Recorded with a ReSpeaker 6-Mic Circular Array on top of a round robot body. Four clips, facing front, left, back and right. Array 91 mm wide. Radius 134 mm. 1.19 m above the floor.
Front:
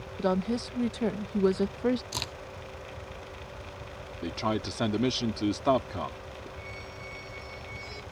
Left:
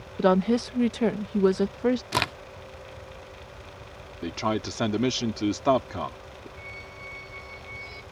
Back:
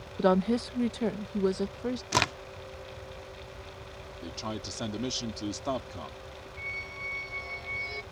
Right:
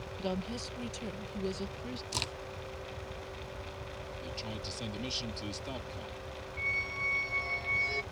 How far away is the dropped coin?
I don't hear a dropped coin.